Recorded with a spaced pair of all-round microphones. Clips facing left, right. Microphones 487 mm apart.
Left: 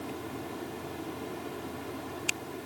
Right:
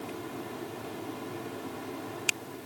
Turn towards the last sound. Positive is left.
No sound to turn to.